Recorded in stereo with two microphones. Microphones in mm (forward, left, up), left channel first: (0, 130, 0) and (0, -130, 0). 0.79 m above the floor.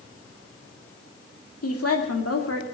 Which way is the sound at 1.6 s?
65° left (ahead or behind).